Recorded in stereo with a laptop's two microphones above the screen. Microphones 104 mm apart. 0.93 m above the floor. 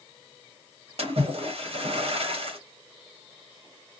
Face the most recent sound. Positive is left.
turn(degrees=-65)  # may be behind; listen again after turning